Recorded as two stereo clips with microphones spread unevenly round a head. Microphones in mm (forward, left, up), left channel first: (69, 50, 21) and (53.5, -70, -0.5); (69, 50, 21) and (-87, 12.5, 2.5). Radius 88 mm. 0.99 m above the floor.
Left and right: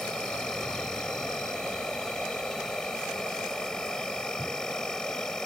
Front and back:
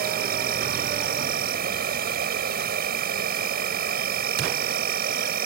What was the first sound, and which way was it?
An insect, 170° left.